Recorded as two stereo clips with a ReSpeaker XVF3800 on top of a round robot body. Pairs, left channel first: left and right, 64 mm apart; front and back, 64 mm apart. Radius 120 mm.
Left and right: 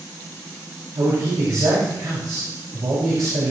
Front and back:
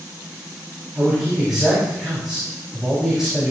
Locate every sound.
0.9 s a man speaking: 95° right, 5 m